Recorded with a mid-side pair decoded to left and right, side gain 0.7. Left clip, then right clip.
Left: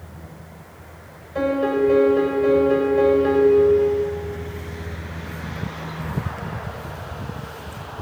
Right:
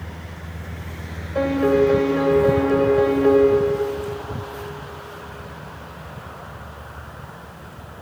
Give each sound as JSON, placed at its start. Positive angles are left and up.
{"t": 1.4, "sound": "a piano", "azimuth_deg": -10, "distance_m": 3.0}